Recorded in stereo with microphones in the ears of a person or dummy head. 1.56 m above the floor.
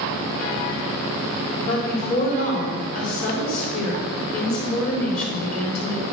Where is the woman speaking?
50° left (ahead or behind), 3 m.